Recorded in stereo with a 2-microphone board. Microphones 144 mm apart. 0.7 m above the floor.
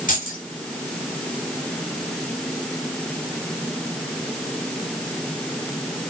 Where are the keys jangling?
70° left (ahead or behind), 3 m.